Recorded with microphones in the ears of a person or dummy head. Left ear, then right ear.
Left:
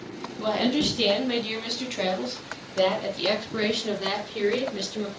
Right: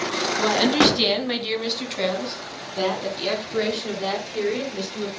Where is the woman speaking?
40° right (ahead or behind), 3.5 m; by 5.1 s 5° left (ahead or behind), 6 m.